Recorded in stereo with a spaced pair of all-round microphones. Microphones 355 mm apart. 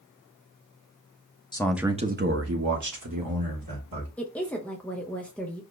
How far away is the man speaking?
About 0.6 m.